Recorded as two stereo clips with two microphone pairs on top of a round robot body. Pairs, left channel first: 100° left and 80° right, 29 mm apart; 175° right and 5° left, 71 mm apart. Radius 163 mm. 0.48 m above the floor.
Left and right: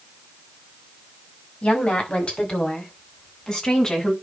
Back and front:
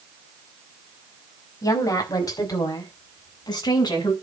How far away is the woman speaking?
About 5.5 m.